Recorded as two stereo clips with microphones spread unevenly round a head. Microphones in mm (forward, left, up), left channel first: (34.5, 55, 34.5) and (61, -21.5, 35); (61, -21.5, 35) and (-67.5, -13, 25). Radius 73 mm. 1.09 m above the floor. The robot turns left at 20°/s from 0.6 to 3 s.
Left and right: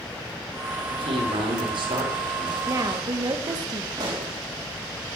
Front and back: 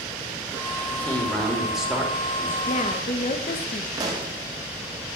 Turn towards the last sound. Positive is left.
turn(degrees=-120)